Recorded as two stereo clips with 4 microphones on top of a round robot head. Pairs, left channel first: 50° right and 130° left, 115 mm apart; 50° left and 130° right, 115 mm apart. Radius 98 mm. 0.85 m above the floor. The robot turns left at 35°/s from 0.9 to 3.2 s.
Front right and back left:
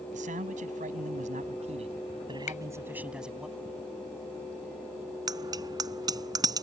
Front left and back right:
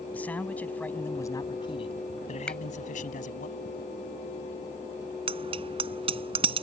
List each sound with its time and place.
0.1 s a man speaking: 125° left; by 3.5 s 45° left
2.5 s a finger snap: 30° right; by 2.6 s 35° right
5.3 s a bicycle bell: 170° right